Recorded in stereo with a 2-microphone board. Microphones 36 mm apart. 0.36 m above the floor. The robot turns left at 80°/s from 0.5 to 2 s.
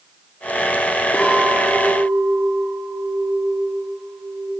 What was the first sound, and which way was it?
A clink, 140° left.